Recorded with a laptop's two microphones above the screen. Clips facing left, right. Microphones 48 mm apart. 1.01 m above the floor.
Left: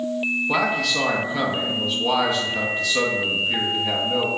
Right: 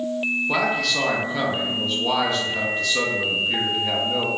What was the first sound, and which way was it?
A man speaking, 5° left (ahead or behind).